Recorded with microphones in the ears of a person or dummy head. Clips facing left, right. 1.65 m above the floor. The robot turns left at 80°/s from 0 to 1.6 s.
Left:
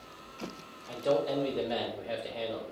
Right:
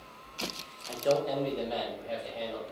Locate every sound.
0.9 s a man speaking: 155° right, 0.6 m; by 2.6 s 145° left, 0.6 m